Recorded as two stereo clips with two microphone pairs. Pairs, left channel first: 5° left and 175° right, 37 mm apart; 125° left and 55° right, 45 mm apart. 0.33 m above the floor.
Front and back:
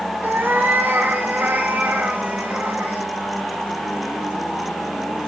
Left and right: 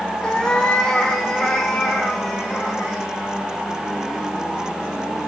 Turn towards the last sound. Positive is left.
turn(degrees=-150)